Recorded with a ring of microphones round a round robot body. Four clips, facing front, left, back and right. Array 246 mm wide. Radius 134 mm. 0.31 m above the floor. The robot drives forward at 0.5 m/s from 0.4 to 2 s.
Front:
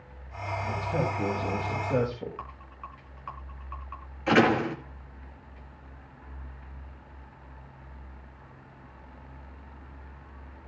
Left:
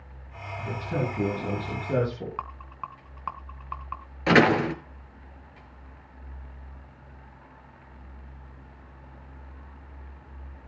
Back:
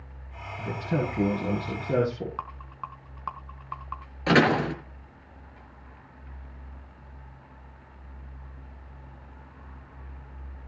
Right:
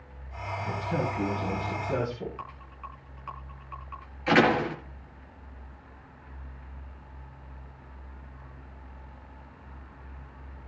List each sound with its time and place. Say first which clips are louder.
0.6 s a man speaking: even, back 1 dB; 165° left, 6.5 m; by 2.4 s 170° left, 7 m
2.4 s a rattle: left 5 dB, back 5 dB; 130° left, 3.5 m
4.3 s a door slam: left 2 dB, back 1 dB; 125° left, 5 m